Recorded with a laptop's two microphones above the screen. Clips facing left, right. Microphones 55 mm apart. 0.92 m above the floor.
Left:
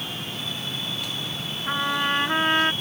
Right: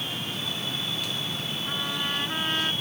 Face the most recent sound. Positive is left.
turn(degrees=40)  # may be behind; listen again after turning